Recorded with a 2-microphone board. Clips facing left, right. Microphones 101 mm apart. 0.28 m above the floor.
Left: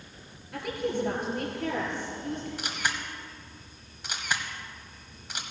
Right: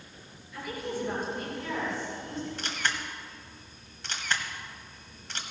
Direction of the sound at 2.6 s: 10° left (ahead or behind).